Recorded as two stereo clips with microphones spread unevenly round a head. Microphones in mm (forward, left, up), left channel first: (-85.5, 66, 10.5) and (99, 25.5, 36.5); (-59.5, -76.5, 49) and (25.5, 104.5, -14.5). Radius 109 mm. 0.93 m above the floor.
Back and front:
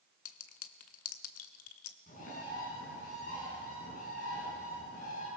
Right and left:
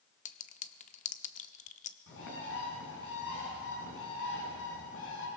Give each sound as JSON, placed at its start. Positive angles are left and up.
{"t": 0.2, "sound": "a clink", "azimuth_deg": -165, "distance_m": 1.1}
{"t": 2.1, "sound": "a bird", "azimuth_deg": -135, "distance_m": 6.0}